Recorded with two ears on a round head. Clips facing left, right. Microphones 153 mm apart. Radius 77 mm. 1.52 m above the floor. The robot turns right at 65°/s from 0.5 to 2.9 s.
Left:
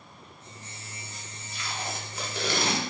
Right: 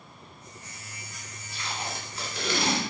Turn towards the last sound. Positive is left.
turn(degrees=60)